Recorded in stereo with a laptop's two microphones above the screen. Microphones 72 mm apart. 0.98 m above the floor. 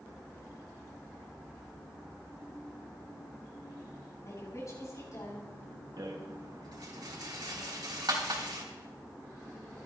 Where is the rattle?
70° right (ahead or behind), 2.5 m.